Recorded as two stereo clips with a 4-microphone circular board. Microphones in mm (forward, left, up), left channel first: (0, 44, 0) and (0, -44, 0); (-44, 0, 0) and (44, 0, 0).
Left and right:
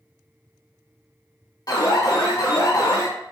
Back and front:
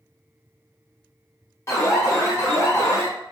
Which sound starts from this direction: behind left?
An alarm, at 1.7 s.